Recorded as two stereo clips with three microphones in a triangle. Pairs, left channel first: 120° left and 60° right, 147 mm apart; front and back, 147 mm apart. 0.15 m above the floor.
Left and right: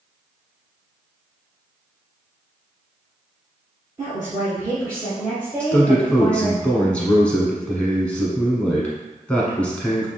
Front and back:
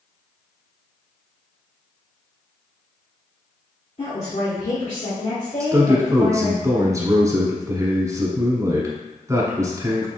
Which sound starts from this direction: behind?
A man speaking, at 5.6 s.